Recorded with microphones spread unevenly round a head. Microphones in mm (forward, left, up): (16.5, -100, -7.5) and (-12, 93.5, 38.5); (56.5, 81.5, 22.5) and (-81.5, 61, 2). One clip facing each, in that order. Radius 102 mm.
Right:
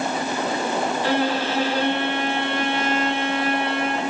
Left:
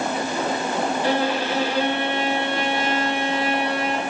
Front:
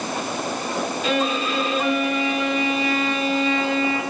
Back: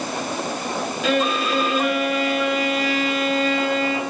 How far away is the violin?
About 9.5 m.